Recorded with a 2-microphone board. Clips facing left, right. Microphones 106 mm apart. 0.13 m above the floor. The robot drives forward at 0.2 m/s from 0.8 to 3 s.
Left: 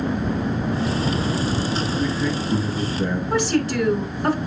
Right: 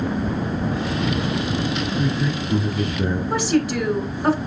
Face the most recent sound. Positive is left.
turn(degrees=-15)  # may be behind; listen again after turning